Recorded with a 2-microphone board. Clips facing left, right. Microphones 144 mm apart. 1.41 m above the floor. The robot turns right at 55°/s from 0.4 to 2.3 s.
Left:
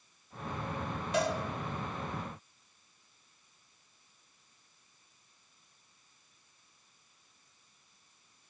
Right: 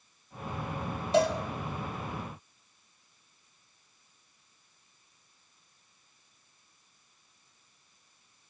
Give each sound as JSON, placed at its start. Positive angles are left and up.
{"t": 1.1, "sound": "a cowbell", "side_deg": -30, "distance_m": 4.0}